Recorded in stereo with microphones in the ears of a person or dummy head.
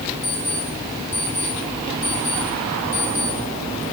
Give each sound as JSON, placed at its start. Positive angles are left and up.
{"t": 0.2, "sound": "an alarm clock", "side_deg": 65, "distance_m": 8.5}